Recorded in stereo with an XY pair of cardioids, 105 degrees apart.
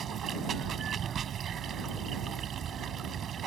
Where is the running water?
50° right.